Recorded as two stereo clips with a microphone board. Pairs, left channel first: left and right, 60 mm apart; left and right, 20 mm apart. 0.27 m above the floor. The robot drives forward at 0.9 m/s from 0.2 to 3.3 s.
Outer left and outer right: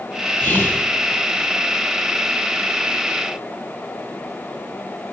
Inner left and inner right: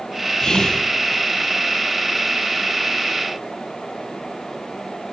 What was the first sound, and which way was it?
Whispering, 35° left (ahead or behind).